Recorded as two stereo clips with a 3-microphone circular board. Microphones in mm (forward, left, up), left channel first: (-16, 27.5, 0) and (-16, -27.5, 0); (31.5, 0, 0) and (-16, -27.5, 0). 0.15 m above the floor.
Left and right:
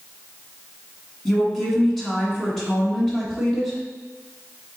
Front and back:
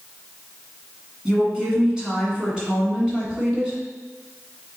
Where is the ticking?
No ticking in this recording.